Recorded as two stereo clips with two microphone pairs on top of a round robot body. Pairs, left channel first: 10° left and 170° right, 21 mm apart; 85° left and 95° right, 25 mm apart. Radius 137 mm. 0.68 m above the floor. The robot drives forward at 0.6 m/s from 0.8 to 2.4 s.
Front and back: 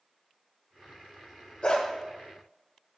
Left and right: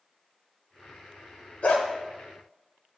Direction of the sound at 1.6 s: 55° left.